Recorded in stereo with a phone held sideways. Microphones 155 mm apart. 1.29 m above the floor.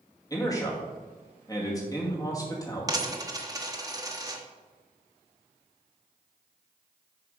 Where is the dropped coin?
25° right (ahead or behind), 1.0 m.